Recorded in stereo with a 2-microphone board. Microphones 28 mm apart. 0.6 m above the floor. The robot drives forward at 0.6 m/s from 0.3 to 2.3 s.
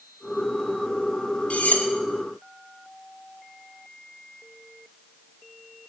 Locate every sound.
1.5 s cutlery clinking: 60° left (ahead or behind), 0.9 m; by 1.9 s 65° left (ahead or behind), 0.8 m